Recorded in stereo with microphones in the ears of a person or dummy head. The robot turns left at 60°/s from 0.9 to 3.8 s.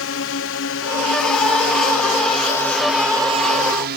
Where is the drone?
60° left (ahead or behind); by 4.0 s 55° right (ahead or behind).